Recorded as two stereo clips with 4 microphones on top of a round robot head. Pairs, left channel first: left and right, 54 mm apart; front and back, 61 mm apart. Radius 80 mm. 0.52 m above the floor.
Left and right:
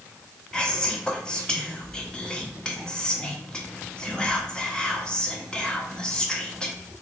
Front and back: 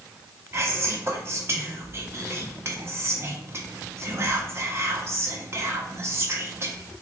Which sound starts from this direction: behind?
Whispering, at 0.5 s.